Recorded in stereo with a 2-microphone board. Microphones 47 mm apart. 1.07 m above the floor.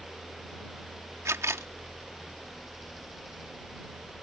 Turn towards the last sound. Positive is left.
turn(degrees=-85)